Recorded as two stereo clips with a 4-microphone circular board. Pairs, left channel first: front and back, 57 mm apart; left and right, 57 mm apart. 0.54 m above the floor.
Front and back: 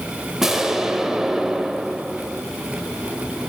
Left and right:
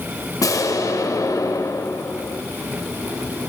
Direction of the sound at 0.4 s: 95° left.